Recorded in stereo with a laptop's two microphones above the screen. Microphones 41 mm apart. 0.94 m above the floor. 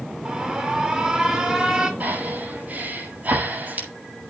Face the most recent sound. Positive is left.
turn(degrees=-40)  # may be behind; listen again after turning